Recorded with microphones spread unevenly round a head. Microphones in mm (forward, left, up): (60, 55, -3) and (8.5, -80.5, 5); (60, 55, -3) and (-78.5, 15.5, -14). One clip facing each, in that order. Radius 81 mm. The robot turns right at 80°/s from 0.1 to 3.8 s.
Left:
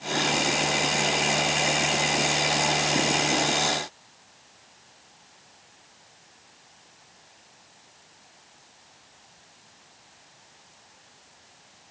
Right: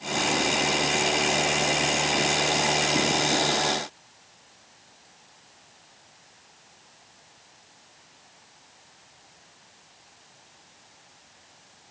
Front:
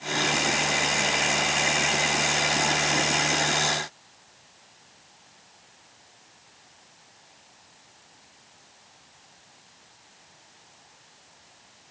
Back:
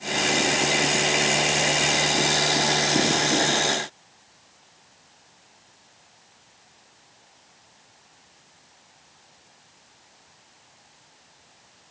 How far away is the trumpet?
No trumpet in this recording.